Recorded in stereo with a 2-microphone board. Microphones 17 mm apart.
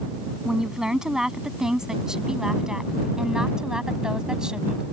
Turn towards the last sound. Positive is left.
turn(degrees=-55)  # may be behind; listen again after turning